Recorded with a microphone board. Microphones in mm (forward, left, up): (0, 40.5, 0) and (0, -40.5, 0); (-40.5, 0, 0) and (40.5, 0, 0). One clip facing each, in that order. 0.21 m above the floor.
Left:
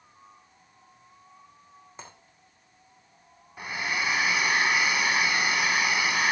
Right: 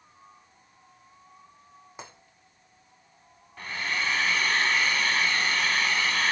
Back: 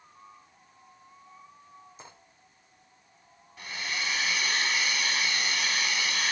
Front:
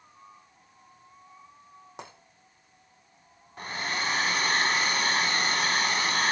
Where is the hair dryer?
20° left, 0.7 m.